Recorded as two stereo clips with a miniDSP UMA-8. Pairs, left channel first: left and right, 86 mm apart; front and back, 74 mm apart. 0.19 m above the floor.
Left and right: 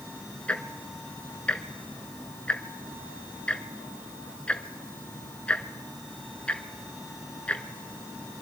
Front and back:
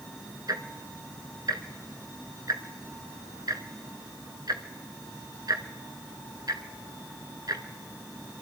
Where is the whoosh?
I don't hear a whoosh.